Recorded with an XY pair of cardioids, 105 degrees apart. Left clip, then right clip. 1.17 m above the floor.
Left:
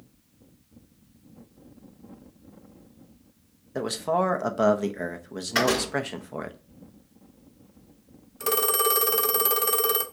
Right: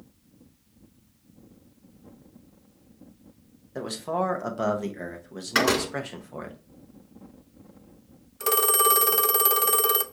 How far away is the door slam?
About 2.5 m.